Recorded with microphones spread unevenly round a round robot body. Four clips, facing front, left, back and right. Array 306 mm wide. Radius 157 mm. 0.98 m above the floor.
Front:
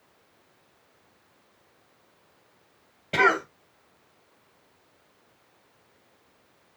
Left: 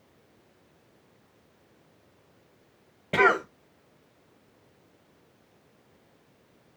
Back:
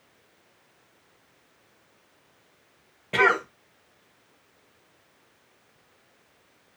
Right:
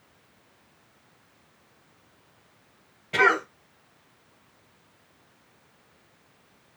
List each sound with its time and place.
3.1 s a cough: 85° left, 1.2 m